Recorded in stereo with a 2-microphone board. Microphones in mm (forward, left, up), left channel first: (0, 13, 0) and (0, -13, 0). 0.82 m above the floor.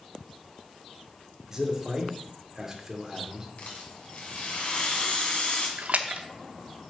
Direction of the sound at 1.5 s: 20° right (ahead or behind).